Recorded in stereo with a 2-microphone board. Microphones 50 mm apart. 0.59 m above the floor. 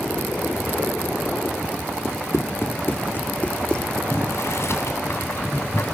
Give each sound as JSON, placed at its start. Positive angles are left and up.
{"t": 2.0, "sound": "running footsteps", "side_deg": 70, "distance_m": 2.0}
{"t": 4.1, "sound": "boiling", "side_deg": 65, "distance_m": 3.5}